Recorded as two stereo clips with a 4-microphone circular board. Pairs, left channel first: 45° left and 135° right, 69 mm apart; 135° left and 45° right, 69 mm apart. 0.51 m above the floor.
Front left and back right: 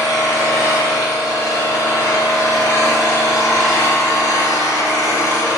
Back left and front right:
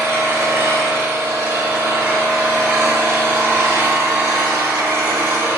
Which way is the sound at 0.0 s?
5° left.